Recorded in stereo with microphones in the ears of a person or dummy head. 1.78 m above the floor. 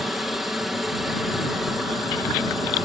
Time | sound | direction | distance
0.0 | a helicopter | centre (ahead or behind) | ?